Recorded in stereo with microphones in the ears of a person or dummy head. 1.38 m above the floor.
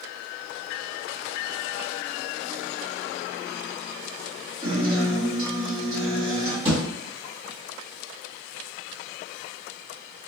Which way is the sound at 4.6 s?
25° right (ahead or behind).